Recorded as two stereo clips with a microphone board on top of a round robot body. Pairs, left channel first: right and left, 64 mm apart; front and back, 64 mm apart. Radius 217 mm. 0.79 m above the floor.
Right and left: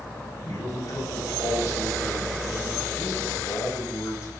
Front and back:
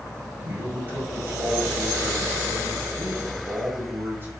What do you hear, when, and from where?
0.4 s a man speaking: 125° right, 4.5 m